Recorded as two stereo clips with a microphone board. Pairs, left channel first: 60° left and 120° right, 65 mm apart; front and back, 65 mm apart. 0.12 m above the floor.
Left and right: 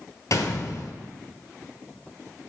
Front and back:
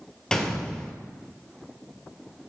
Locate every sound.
0.3 s a gunshot: 75° left, 0.9 m